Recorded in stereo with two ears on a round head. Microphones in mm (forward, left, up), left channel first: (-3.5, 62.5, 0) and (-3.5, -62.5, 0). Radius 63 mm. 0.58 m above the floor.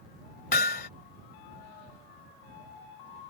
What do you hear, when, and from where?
0.5 s hammering: 75° left (ahead or behind)